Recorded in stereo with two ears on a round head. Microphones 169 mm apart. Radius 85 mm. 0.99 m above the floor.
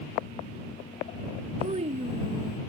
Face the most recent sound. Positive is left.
turn(degrees=-35)  # may be behind; listen again after turning